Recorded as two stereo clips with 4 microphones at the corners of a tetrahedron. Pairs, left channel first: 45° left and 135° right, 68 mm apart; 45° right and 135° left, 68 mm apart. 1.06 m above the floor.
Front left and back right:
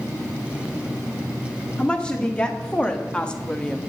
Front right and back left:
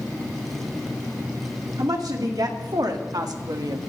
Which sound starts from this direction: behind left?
A woman speaking, at 1.8 s.